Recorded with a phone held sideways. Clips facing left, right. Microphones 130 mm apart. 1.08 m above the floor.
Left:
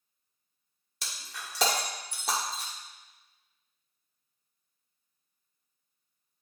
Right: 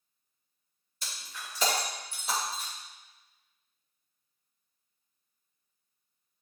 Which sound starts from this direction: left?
Breaking glass, at 1.0 s.